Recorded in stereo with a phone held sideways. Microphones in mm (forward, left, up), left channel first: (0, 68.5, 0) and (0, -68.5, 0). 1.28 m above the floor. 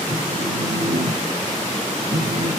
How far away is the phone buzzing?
About 1.5 m.